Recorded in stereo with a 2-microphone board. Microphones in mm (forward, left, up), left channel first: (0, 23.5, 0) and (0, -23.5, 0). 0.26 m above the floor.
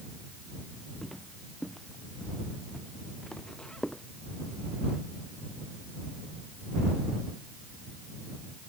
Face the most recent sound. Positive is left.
turn(degrees=15)  # may be behind; listen again after turning